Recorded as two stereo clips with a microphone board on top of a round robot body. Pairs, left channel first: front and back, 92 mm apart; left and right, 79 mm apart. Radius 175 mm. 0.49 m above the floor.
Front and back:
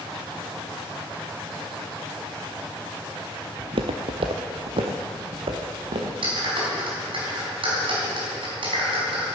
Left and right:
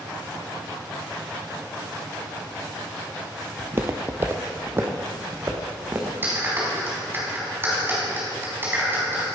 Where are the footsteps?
150° right, 0.6 m.